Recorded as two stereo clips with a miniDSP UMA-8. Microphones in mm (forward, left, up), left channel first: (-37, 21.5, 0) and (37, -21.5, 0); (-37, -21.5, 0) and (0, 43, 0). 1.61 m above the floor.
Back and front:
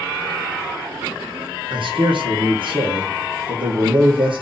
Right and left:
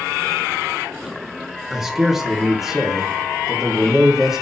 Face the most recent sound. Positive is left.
turn(degrees=-25)